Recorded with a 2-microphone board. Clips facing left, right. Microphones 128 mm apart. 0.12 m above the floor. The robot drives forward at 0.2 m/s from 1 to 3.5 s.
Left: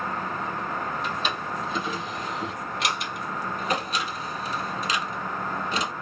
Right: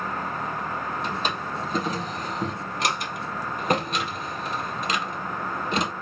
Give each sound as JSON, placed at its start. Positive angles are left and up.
{"t": 1.0, "sound": "a drawer", "side_deg": -40, "distance_m": 1.6}